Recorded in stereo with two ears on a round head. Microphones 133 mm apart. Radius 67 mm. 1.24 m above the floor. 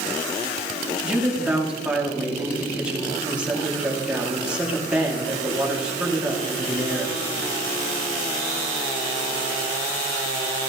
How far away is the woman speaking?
About 2 m.